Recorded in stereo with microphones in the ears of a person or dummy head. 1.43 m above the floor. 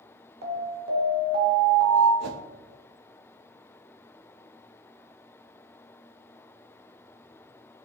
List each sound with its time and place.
0.4 s an alarm: 65° right (ahead or behind), 1.7 m
2.2 s a whoosh: 60° right (ahead or behind), 0.6 m